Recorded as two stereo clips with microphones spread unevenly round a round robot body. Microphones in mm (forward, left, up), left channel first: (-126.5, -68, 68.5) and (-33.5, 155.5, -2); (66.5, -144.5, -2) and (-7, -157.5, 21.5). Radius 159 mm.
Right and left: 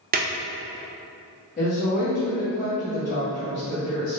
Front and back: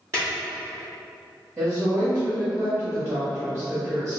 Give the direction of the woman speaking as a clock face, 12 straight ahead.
5 o'clock.